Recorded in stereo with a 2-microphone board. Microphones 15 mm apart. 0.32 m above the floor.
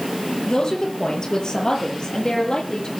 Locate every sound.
0.5 s a woman speaking: 55° left (ahead or behind), 7 m; by 2.9 s 60° left (ahead or behind), 9 m